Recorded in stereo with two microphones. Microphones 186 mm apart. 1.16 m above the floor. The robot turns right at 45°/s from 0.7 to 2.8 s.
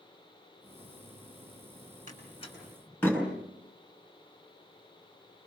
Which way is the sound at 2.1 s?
45° left (ahead or behind).